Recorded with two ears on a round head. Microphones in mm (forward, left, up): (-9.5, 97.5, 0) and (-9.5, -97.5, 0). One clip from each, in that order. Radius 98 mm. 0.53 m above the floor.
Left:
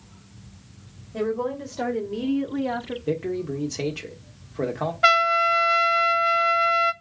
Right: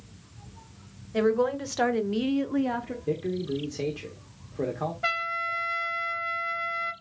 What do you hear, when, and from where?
1.1 s a woman speaking: 60° right (ahead or behind), 2.5 m; by 3.0 s 20° left (ahead or behind), 1.0 m
3.1 s a man speaking: 30° left (ahead or behind), 1.2 m
5.0 s a trumpet: 45° left (ahead or behind), 0.7 m